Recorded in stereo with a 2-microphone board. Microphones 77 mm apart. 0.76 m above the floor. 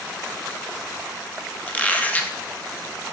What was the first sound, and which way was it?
A squeak, 20° left (ahead or behind).